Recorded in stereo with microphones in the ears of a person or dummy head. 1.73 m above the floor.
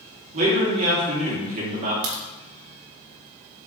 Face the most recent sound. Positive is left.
turn(degrees=-55)  # may be behind; listen again after turning